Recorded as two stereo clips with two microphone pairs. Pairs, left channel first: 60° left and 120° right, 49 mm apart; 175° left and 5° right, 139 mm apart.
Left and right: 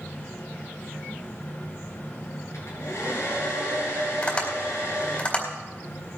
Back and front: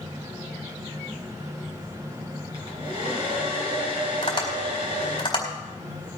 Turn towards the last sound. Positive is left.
turn(degrees=120)